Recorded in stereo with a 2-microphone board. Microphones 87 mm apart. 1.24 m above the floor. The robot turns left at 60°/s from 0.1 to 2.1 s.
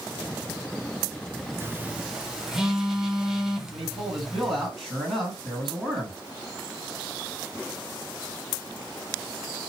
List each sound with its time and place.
1.6 s a phone buzzing: 30° right (ahead or behind), 0.5 m; by 4.7 s 5° right (ahead or behind), 0.5 m
3.7 s a man speaking: centre (ahead or behind), 1.9 m